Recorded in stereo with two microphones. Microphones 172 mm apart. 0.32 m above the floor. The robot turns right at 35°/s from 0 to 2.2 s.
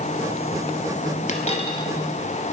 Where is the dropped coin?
45° left (ahead or behind), 1.4 m; by 1.9 s 25° left (ahead or behind), 1.4 m.